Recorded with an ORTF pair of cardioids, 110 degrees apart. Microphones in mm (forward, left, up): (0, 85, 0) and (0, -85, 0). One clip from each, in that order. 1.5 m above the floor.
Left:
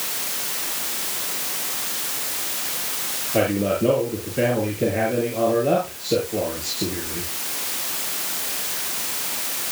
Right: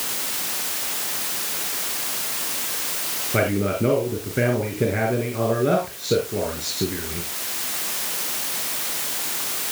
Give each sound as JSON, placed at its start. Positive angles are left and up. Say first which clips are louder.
{"t": 3.3, "sound": "a man speaking", "louder": "left 2 dB", "azimuth_deg": -65, "distance_m": 6.0}